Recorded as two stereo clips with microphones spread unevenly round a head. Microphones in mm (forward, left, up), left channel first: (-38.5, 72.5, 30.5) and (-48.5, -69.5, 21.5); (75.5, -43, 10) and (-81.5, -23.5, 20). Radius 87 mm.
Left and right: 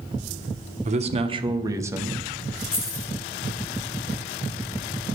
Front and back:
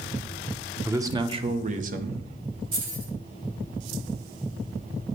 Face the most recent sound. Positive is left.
turn(degrees=130)